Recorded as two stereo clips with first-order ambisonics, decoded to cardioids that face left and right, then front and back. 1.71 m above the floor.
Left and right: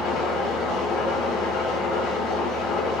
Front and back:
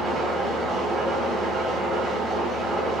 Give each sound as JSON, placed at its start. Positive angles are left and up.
{"t": 0.0, "sound": "an engine running", "azimuth_deg": 110, "distance_m": 3.0}